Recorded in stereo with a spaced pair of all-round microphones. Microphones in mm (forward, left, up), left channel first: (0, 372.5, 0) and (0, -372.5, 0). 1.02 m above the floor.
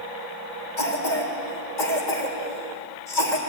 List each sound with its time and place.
0.8 s a cough: 80° left, 4.5 m